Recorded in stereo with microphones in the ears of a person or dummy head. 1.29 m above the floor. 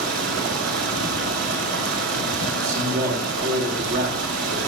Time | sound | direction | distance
0.0 | running water | 65° right (ahead or behind) | 2.5 m
2.5 | a man speaking | 55° right (ahead or behind) | 4 m